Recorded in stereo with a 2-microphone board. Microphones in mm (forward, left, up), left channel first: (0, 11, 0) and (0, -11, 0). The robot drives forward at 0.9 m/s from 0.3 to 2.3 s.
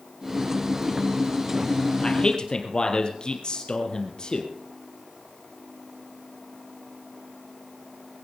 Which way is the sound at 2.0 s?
40° left (ahead or behind).